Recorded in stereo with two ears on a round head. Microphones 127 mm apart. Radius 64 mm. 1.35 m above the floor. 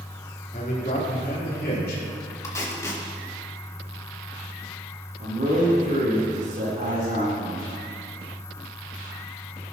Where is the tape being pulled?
20° left (ahead or behind), 1.9 m.